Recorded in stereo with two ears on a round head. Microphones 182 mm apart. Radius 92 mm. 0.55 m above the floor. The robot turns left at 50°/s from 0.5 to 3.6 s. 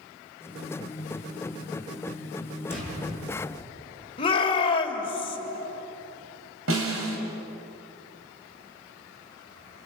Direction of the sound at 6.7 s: 70° right (ahead or behind).